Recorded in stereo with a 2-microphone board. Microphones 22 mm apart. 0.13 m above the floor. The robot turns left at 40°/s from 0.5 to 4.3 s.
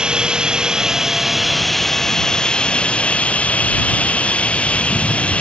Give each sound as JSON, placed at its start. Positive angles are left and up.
{"t": 0.0, "sound": "running water", "azimuth_deg": -140}